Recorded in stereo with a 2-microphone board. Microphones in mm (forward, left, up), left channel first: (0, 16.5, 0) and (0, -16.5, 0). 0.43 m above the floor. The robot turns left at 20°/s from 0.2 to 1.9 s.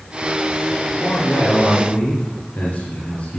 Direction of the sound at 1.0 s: 80° left.